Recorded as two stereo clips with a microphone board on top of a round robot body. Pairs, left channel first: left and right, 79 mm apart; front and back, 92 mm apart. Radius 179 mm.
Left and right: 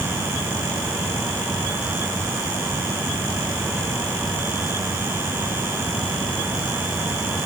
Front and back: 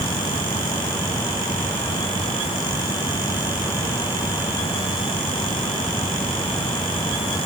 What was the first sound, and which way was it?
Only background noise.